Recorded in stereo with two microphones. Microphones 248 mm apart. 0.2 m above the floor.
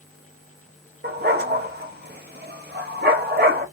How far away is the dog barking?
About 1.1 m.